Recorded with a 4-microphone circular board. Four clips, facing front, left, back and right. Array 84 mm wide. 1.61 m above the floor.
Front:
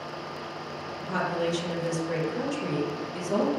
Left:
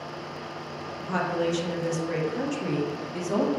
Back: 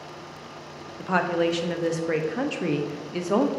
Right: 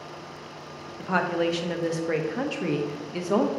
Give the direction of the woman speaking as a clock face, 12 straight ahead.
5 o'clock.